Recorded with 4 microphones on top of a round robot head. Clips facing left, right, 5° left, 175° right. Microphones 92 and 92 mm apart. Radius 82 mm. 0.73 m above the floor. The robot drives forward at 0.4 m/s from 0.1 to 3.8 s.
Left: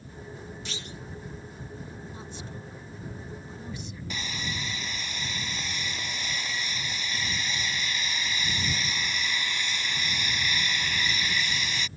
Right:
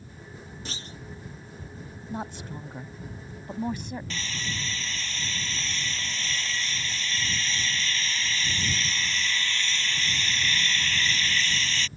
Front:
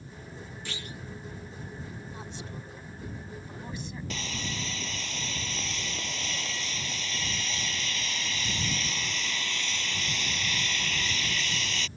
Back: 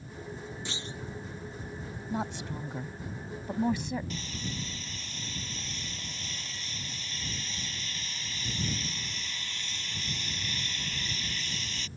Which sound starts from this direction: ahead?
Sawing, at 4.1 s.